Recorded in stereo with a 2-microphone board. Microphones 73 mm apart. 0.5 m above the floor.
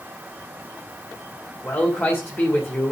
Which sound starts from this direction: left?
A man speaking, at 1.6 s.